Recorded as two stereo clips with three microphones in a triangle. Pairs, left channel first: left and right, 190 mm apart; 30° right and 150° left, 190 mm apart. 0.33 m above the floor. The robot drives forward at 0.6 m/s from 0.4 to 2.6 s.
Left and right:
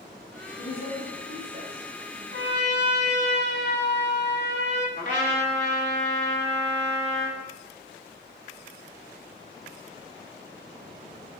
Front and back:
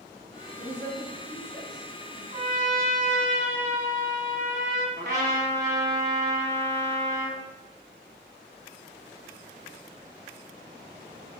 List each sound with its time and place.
0.6 s a woman speaking: 70° left, 2 m; by 2.2 s 100° left, 2 m
2.3 s a trumpet: 100° left, 0.6 m; by 4.9 s 115° left, 0.7 m
5.0 s a trumpet: 120° left, 1.2 m